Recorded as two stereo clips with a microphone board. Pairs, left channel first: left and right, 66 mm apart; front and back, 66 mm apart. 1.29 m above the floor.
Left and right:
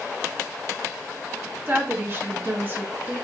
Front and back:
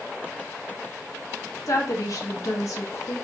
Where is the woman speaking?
35° right, 1.0 m.